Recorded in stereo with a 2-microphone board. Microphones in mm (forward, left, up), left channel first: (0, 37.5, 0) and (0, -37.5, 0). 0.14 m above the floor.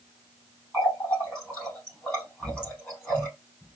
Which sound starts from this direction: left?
A running tap, at 0.7 s.